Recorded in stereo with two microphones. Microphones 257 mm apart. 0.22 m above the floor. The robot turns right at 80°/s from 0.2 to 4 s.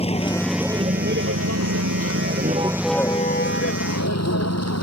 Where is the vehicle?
25° left (ahead or behind); by 4.8 s 80° left.